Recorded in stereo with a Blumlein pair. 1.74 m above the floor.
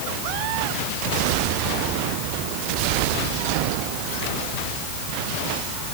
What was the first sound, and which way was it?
Only background noise.